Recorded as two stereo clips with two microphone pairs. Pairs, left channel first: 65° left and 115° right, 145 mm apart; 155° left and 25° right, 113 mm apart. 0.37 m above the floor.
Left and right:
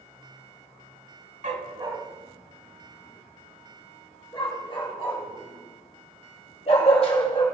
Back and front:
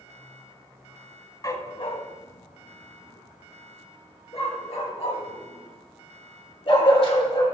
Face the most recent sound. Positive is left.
turn(degrees=115)